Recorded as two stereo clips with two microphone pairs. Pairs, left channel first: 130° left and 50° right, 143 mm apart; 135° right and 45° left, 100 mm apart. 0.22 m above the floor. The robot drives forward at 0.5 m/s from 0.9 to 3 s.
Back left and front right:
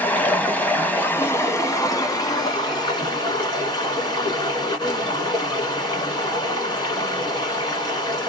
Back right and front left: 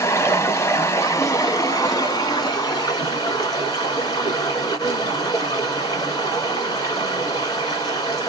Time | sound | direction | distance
0.0 | running water | 165° right | 0.9 m